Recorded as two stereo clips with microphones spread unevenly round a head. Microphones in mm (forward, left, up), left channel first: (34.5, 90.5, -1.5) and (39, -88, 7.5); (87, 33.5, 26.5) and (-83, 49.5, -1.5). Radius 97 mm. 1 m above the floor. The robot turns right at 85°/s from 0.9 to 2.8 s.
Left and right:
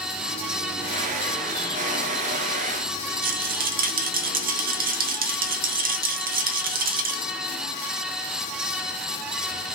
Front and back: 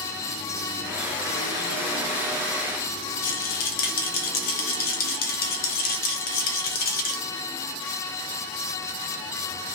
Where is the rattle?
50° right, 0.5 m.